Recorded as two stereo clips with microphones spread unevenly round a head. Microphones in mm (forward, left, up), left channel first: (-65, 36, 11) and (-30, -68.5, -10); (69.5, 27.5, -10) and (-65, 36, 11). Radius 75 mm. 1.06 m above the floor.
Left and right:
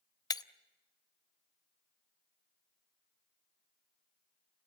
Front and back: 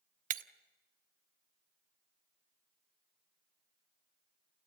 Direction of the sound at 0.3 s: 160° left.